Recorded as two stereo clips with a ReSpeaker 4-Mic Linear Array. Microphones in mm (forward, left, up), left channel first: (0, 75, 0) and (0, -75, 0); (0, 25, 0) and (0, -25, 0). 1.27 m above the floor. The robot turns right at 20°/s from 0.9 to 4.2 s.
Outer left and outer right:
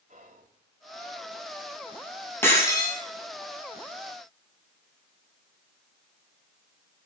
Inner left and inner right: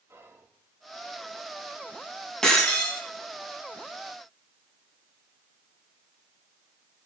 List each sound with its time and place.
0.1 s whispering: 60° right (ahead or behind), 3.5 m
2.4 s breaking glass: 15° left (ahead or behind), 6.5 m; by 3.0 s 25° left (ahead or behind), 6.5 m